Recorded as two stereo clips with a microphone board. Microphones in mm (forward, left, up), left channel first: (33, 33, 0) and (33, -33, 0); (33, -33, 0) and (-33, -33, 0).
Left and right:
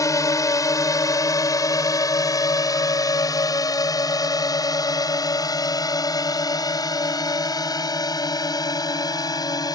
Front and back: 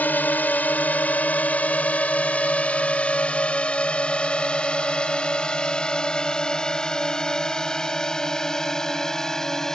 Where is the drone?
60° left; by 9.8 s 80° left.